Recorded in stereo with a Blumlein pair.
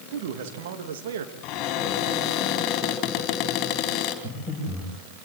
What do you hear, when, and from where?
0.1 s a man speaking: 55° right, 2.5 m
1.4 s a cupboard door: 40° left, 3.5 m
4.2 s breathing: straight ahead, 9.5 m